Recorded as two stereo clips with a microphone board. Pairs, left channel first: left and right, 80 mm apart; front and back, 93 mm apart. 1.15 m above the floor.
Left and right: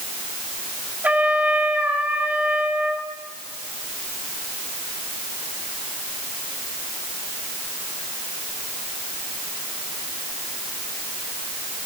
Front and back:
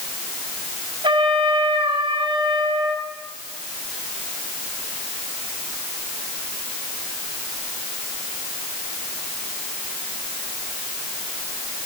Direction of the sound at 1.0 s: 160° right.